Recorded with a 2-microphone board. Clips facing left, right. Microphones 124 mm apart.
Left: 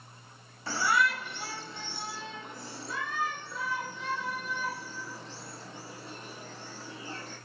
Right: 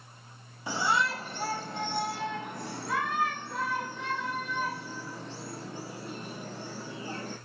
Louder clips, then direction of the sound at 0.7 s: Even; 15° right (ahead or behind).